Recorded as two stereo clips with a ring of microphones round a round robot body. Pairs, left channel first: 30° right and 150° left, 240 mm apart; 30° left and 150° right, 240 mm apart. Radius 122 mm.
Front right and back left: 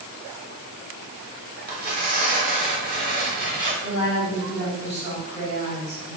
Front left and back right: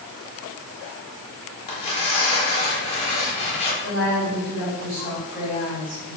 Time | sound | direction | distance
1.7 | tearing paper | 95° left | 0.8 m
3.8 | a woman speaking | 150° right | 1.4 m